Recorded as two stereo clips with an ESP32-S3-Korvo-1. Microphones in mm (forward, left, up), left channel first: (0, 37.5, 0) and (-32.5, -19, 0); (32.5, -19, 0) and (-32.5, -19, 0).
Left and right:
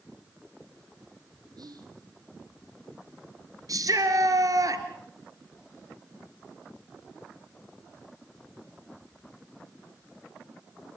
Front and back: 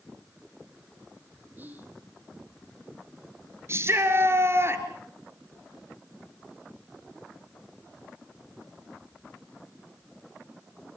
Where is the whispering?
115° right, 5.5 m.